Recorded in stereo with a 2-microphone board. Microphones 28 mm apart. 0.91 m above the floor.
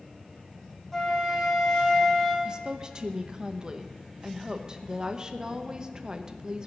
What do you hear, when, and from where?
0.9 s a flute: 5° left (ahead or behind), 2.5 m
2.5 s a woman speaking: 30° right (ahead or behind), 1.0 m